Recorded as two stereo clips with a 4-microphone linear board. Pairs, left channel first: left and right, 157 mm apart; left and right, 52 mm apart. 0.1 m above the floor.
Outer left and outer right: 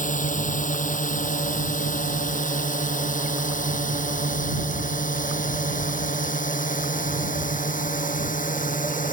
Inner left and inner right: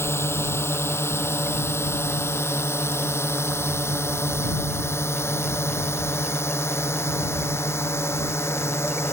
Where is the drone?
60° left (ahead or behind); by 9.1 s 65° left (ahead or behind).